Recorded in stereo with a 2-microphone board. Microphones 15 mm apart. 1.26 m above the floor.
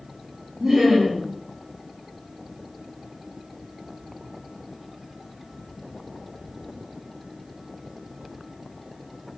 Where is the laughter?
30° right (ahead or behind), 1.3 m.